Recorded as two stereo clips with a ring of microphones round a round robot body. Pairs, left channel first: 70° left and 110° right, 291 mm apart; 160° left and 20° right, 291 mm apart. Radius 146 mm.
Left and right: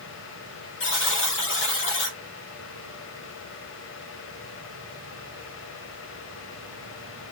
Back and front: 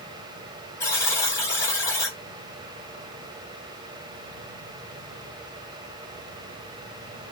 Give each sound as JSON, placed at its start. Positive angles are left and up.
{"t": 0.8, "sound": "a buzzer", "azimuth_deg": 80, "distance_m": 1.2}